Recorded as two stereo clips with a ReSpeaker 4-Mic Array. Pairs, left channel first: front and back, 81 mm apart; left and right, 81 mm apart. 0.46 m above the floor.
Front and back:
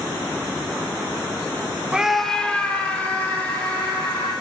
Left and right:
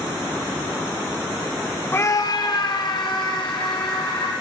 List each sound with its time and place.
1.9 s a scream: 115° left, 0.8 m; by 4.3 s 70° left, 4 m